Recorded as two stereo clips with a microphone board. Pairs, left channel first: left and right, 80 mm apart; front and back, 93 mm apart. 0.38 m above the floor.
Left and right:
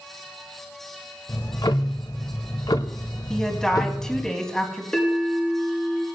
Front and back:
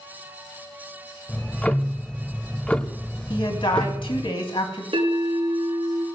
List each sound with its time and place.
1.3 s ticking: 75° left, 0.7 m
3.3 s a woman speaking: 10° left, 2.5 m
4.9 s a bell: 165° left, 4.5 m